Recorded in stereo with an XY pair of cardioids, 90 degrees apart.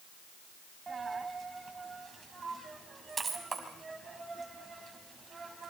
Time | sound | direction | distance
0.9 | a dropped coin | 35° right | 5 m